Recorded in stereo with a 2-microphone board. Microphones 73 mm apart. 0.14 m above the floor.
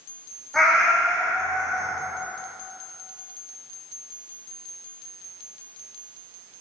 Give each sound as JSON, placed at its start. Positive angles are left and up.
{"t": 0.5, "sound": "a cat meowing", "side_deg": 5, "distance_m": 0.5}